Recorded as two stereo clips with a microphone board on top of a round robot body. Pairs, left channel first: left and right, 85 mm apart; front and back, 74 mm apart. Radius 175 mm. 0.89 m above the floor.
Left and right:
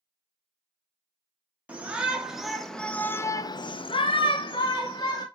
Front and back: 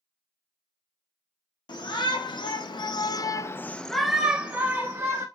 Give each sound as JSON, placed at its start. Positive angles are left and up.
{"t": 1.7, "sound": "a shout", "azimuth_deg": -15, "distance_m": 1.1}